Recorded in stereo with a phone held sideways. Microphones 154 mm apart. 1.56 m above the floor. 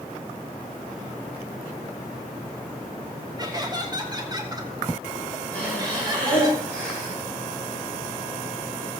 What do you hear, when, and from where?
3.4 s laughter: 30° right (ahead or behind), 3 m
5.5 s breathing: 10° left (ahead or behind), 8 m